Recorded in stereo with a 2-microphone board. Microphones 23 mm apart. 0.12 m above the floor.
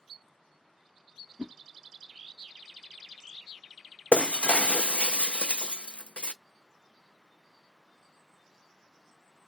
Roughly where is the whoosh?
Right.